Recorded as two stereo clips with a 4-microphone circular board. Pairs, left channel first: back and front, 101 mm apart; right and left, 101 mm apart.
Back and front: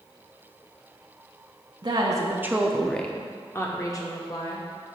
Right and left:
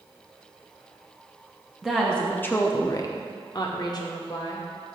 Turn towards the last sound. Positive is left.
turn(degrees=-135)